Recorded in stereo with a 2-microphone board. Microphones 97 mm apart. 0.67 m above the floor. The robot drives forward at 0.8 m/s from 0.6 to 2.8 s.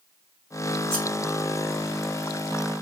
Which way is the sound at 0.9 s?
5° left (ahead or behind).